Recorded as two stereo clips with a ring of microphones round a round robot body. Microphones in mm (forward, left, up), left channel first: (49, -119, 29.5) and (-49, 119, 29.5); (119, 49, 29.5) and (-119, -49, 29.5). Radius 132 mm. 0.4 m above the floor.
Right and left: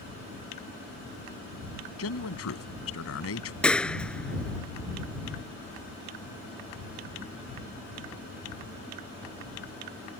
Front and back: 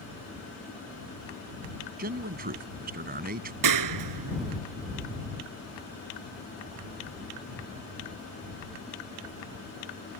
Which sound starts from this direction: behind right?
A clap, at 3.6 s.